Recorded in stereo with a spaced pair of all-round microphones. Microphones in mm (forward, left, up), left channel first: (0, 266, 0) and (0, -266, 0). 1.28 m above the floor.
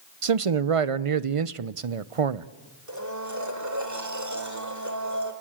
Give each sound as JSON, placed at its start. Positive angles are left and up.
{"t": 0.2, "sound": "a man speaking", "side_deg": -75, "distance_m": 0.7}
{"t": 2.9, "sound": "a blender", "side_deg": -30, "distance_m": 2.5}